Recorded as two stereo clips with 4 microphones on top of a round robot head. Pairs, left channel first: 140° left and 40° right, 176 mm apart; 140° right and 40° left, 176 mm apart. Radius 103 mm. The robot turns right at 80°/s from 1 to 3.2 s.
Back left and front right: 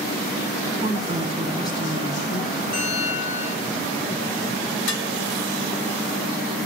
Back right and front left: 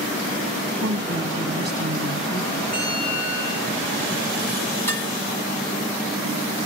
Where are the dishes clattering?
140° left, 3 m.